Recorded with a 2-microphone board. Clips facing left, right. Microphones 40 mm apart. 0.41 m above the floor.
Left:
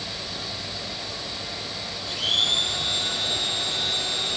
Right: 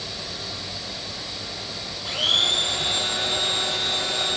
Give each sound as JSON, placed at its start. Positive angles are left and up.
{"t": 2.0, "sound": "a blender", "side_deg": -50, "distance_m": 9.0}